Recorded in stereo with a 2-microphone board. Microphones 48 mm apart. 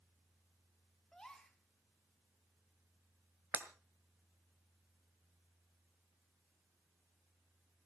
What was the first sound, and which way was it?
A gasp, 15° left (ahead or behind).